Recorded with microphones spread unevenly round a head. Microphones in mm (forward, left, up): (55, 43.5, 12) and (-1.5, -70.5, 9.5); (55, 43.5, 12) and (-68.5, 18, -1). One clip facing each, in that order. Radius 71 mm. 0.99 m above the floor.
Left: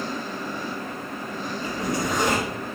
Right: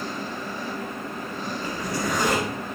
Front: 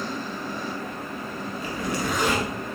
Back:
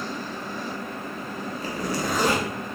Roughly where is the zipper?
Behind left.